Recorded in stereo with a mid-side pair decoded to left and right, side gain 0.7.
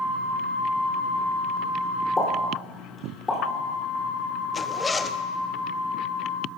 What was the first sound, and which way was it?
A pop, 20° left.